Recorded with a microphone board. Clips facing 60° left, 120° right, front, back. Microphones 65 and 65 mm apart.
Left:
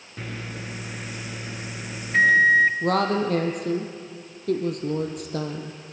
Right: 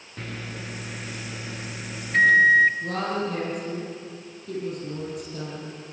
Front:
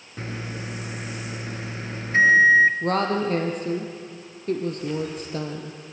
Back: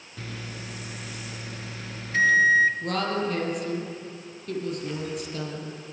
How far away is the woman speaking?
About 2.5 m.